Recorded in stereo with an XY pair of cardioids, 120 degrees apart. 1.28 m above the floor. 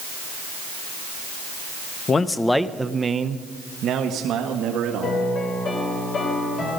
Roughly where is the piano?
Ahead left.